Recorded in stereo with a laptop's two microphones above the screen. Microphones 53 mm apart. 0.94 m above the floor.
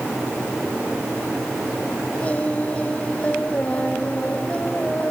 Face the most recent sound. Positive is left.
turn(degrees=25)  # may be behind; listen again after turning